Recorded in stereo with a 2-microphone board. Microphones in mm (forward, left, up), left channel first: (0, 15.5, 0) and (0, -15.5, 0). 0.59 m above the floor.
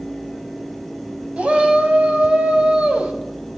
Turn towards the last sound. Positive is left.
turn(degrees=-40)  # may be behind; listen again after turning